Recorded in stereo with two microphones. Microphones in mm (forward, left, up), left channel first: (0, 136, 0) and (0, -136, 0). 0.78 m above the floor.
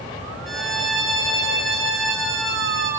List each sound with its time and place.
0.5 s a violin: centre (ahead or behind), 2.5 m